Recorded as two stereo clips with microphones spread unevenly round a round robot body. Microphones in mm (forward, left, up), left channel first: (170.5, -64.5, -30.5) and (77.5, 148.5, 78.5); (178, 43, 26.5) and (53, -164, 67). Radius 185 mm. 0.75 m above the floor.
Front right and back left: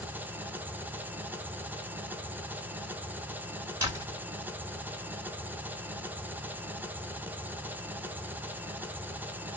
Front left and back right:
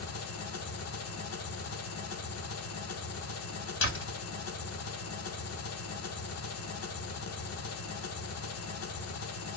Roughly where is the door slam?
Ahead left.